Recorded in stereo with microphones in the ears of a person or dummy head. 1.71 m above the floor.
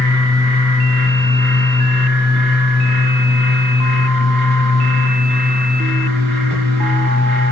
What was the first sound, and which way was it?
A fan, 45° right (ahead or behind).